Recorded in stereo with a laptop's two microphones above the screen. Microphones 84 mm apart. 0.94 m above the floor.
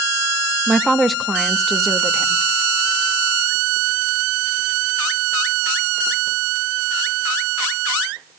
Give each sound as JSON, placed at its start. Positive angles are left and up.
{"t": 0.7, "sound": "a woman speaking", "side_deg": 0, "distance_m": 1.1}